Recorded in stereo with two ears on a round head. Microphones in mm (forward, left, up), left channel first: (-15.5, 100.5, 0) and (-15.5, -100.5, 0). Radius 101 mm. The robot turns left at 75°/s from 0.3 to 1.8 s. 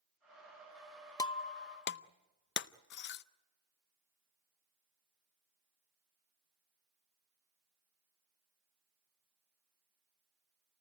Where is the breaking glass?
15° left (ahead or behind), 0.6 m; by 3.2 s 50° left (ahead or behind), 0.6 m.